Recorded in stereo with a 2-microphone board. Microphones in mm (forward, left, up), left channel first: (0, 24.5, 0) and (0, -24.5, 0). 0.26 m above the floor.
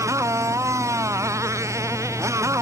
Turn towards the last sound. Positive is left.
turn(degrees=-85)